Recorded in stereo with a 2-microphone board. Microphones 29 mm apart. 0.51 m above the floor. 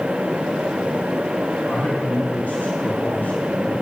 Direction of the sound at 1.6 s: 60° left (ahead or behind).